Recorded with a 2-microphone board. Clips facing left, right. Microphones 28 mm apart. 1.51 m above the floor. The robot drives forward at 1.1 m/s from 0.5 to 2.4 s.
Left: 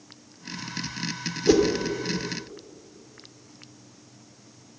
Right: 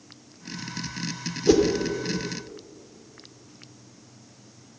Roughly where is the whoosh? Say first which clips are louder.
Right 1 dB; centre.